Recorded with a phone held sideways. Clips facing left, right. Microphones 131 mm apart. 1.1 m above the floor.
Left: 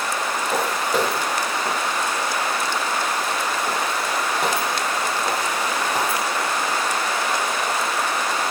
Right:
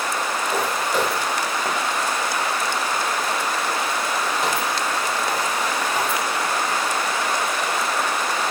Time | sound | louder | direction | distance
0.5 | footsteps | left 1 dB | 35° left (ahead or behind) | 6.5 m